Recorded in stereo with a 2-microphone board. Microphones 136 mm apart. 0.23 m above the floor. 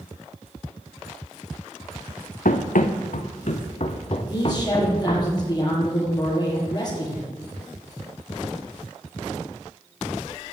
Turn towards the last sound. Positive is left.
turn(degrees=30)  # may be behind; listen again after turning